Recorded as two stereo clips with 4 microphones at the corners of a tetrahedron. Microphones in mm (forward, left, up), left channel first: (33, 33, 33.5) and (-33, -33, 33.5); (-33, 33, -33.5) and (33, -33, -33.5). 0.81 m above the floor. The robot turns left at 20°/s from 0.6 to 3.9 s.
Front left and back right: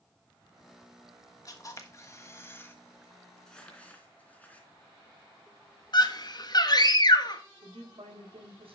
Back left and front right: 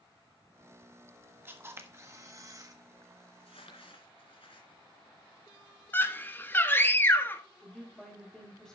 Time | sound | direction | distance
1.4 | a camera shutter | 15° left | 1.4 m
3.4 | crumpling | 130° left | 2.5 m
5.9 | a scream | 75° left | 1.2 m
7.6 | a woman speaking | 140° right | 4.5 m